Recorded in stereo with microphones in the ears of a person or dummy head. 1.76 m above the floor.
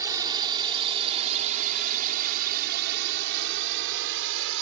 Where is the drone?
20° right (ahead or behind); by 4.6 s 75° right (ahead or behind).